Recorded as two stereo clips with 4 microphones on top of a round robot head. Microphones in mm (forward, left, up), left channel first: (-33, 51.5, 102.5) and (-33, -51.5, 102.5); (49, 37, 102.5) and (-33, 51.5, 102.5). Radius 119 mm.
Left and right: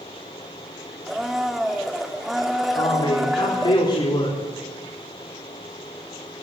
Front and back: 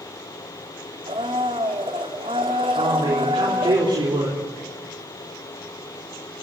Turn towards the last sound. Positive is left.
turn(degrees=140)